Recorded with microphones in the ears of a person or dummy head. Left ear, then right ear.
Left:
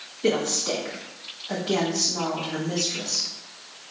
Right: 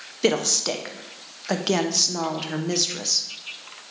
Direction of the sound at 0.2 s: 70° right (ahead or behind).